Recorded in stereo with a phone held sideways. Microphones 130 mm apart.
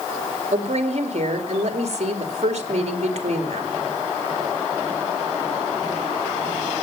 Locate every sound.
0.5 s a woman speaking: 55° right (ahead or behind), 2.5 m